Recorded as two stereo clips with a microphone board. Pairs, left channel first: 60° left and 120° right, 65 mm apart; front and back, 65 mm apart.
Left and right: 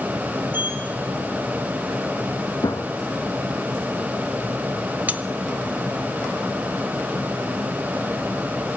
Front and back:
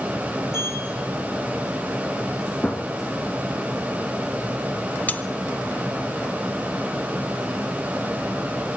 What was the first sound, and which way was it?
A sliding door, 175° right.